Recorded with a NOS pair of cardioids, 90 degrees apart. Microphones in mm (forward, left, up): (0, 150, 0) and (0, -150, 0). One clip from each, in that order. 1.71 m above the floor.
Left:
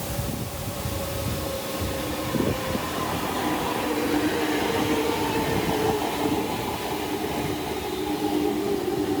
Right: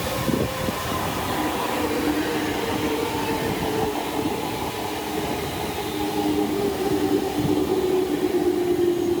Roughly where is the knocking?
I don't hear knocking.